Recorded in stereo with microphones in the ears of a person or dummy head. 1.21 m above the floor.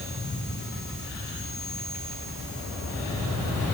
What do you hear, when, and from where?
Only background noise.